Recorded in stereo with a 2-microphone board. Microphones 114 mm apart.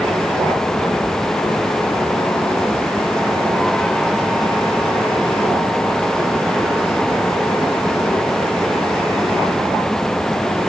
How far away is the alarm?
No alarm in this recording.